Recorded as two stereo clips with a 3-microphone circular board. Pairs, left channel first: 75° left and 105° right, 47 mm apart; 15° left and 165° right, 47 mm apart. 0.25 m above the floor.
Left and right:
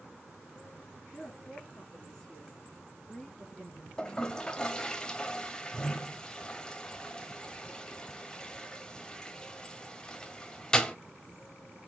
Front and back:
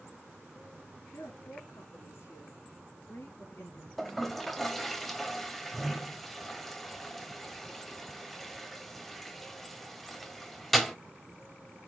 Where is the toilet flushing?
95° left, 1.0 m.